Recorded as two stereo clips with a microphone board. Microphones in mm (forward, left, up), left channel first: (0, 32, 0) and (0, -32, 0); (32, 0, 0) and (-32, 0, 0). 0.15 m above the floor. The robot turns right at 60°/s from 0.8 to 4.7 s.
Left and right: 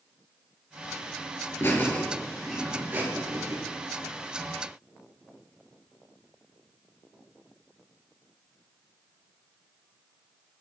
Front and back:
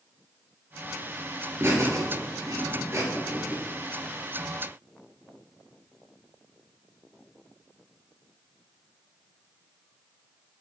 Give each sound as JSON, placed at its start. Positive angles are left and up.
{"t": 1.6, "sound": "laughter", "azimuth_deg": 135, "distance_m": 2.5}